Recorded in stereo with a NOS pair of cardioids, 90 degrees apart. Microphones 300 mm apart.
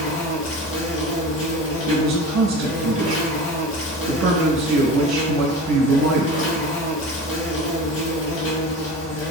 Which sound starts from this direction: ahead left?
An insect, at 0.0 s.